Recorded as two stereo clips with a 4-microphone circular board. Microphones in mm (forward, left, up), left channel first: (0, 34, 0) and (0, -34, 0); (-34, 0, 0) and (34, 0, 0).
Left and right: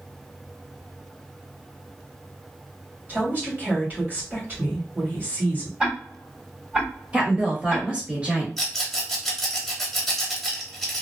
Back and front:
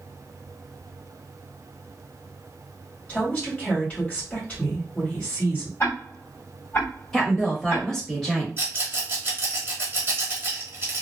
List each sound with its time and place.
3.1 s a woman speaking: 125° right, 1.9 m
5.8 s ticking: 155° right, 1.9 m
7.1 s a woman speaking: 110° right, 1.2 m
8.6 s a rattle: straight ahead, 1.0 m